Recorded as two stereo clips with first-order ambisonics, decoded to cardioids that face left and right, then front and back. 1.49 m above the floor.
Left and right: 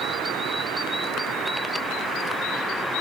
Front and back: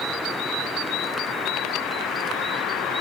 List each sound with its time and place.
Only background noise.